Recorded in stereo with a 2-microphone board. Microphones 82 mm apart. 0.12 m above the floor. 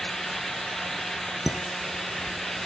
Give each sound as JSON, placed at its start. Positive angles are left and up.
{"t": 1.5, "sound": "dishes clattering", "side_deg": -5, "distance_m": 0.8}